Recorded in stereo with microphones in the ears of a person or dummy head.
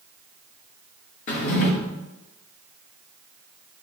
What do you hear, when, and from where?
1.3 s a drawer: 40° left (ahead or behind), 1.1 m